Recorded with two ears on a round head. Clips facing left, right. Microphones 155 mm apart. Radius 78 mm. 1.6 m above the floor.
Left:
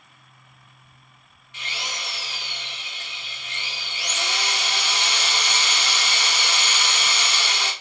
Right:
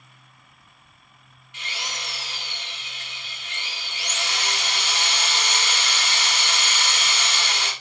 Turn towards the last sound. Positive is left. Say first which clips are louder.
# left 1 dB
turn(degrees=70)  # may be behind; listen again after turning